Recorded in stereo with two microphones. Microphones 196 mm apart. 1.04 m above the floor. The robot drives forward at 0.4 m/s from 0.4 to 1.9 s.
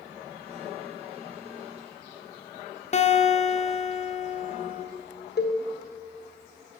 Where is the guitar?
40° left (ahead or behind), 0.6 m.